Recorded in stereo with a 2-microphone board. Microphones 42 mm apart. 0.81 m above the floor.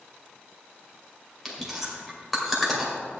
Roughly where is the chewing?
Centre.